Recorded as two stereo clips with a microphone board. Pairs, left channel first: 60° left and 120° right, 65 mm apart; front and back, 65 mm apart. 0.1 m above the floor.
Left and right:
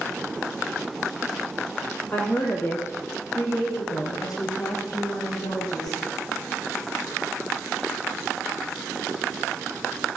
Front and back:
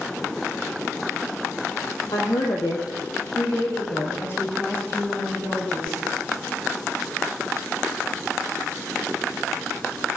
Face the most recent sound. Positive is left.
turn(degrees=75)